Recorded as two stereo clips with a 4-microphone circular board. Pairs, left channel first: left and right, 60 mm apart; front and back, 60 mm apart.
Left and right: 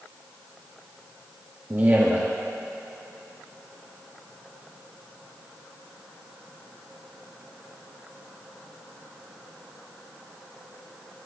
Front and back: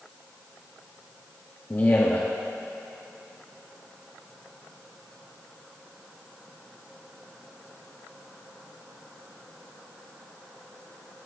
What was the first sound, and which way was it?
A man speaking, 40° right.